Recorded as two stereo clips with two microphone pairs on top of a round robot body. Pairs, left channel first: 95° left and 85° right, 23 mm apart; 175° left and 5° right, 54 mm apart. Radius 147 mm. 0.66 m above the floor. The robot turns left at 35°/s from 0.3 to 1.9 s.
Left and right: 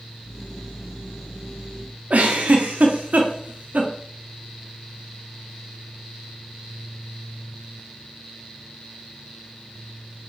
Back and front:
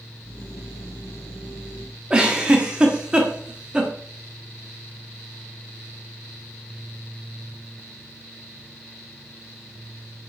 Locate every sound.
2.1 s a giggle: 80° right, 1.4 m